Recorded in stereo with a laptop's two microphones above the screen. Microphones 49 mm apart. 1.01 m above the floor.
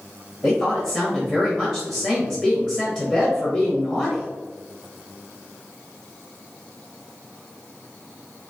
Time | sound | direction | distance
0.4 | a woman speaking | 20° left (ahead or behind) | 1.1 m